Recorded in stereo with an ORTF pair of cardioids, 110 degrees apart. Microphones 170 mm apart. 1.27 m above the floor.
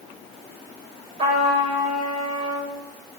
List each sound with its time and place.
1.2 s a trumpet: 35° right, 4.5 m